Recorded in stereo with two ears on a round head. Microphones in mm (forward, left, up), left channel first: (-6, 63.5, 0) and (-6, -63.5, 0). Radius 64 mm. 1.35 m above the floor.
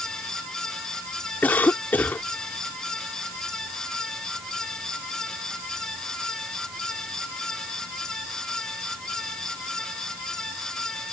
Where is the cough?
10° left (ahead or behind).